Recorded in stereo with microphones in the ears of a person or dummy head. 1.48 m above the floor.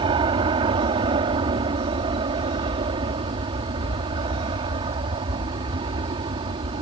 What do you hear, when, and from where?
0.0 s an aircraft: 30° right (ahead or behind)